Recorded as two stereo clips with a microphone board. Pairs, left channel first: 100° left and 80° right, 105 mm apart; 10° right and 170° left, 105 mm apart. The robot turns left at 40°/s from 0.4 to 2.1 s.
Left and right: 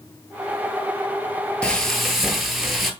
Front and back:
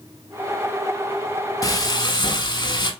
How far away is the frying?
About 0.6 m.